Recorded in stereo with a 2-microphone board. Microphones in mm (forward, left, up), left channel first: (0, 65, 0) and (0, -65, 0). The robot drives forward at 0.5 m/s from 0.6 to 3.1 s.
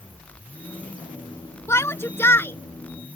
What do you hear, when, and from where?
1.7 s a shout: 20° left (ahead or behind); by 3.2 s 15° left (ahead or behind)